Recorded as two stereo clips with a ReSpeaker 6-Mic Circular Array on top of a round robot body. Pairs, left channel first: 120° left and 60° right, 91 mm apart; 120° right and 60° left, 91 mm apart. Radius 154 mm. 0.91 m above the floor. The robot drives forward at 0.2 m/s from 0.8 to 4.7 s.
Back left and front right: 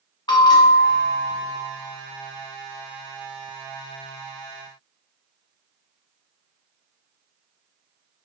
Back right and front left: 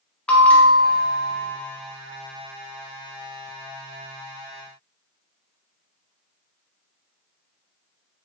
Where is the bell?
165° left, 0.5 m.